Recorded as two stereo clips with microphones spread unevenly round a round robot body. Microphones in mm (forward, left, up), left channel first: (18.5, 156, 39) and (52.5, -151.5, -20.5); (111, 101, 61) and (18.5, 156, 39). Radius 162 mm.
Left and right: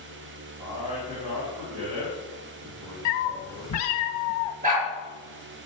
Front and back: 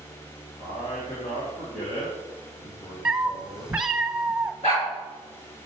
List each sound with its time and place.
0.6 s a man speaking: 15° right, 3 m
3.0 s a cat meowing: 65° left, 1.4 m
4.6 s a dog barking: 15° right, 4.5 m